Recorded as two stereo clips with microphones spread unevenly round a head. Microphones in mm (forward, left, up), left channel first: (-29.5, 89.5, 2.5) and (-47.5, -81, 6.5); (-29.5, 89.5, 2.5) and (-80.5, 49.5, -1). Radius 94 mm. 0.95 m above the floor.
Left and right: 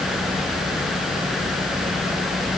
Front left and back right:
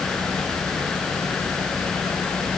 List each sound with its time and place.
Only background noise.